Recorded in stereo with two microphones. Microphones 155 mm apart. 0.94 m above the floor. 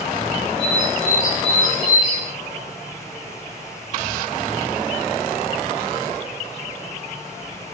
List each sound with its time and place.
0.6 s a bird: 55° left (ahead or behind), 6 m